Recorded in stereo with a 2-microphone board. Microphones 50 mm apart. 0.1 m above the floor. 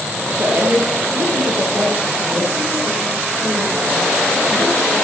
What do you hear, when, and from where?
0.4 s a woman speaking: 45° right (ahead or behind), 2.5 m; by 4.9 s 35° right (ahead or behind), 6 m